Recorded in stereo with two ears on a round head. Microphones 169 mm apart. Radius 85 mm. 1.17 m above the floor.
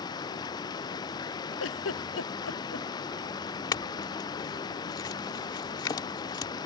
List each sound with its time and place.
0.0 s running water: 20° left (ahead or behind)
1.6 s a giggle: 75° left (ahead or behind)
3.7 s a clink: 20° left (ahead or behind)